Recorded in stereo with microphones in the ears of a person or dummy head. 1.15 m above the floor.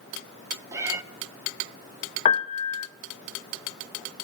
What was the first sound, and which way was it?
A cat meowing, 25° right (ahead or behind).